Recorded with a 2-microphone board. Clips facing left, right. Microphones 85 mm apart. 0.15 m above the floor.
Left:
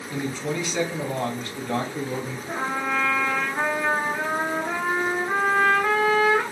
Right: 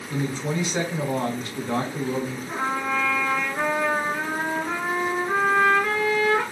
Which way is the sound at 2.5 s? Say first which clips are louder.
Left 1 dB; 20° left (ahead or behind).